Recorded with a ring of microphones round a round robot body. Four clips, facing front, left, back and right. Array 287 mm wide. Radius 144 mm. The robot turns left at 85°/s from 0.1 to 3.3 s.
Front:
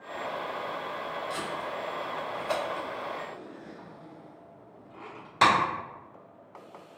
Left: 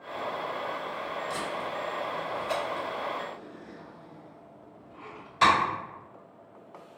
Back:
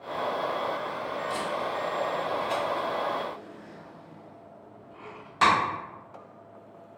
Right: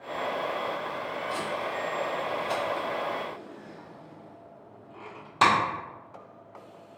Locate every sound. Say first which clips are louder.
1.3 s tape being pulled: right 2 dB, back 4 dB; 110° left, 1.6 m; by 5.5 s 60° right, 1.6 m